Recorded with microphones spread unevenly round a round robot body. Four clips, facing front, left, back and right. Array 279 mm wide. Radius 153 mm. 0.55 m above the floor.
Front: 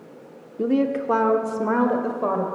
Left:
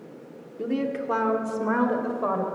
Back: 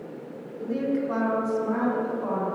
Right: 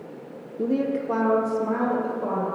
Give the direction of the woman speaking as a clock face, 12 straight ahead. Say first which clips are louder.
Right 3 dB, front 5 dB; 1 o'clock.